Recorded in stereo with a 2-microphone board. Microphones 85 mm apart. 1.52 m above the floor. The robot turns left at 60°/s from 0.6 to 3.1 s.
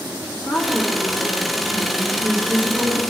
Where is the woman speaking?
10° right, 3 m; by 3.0 s 155° right, 3 m.